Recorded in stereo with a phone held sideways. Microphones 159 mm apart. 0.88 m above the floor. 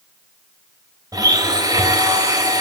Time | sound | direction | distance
1.1 | a blender | 25° right (ahead or behind) | 3.5 m